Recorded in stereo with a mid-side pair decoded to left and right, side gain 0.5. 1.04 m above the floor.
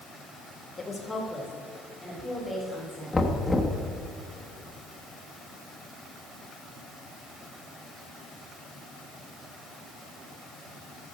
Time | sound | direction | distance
0.8 | a woman speaking | 25° left | 1.5 m
3.1 | knocking | 10° left | 1.2 m